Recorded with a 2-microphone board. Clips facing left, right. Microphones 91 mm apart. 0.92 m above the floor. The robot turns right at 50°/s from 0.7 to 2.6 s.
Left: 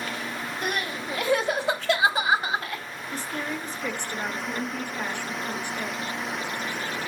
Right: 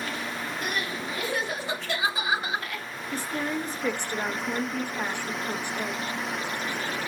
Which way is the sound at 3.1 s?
15° right (ahead or behind).